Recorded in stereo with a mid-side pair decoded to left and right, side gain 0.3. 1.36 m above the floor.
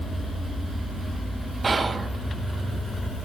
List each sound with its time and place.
1.6 s whispering: 40° right, 0.5 m